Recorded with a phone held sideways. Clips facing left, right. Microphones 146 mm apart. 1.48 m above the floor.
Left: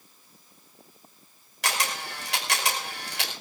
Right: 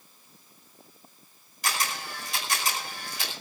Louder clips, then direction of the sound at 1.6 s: Left 1 dB; 85° left.